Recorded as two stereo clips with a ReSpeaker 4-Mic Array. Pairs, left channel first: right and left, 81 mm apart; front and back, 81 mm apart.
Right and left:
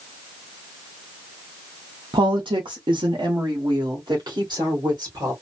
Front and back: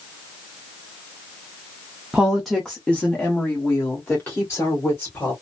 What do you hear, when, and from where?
2.1 s a woman speaking: 100° left, 0.7 m; by 5.3 s 55° left, 2 m